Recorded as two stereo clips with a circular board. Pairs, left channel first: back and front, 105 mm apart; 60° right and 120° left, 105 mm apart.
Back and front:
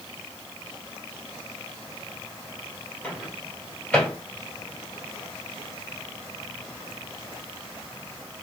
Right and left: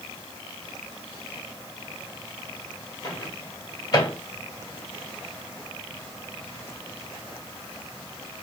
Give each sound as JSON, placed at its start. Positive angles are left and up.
{"t": 3.0, "sound": "a microwave", "azimuth_deg": -105, "distance_m": 1.5}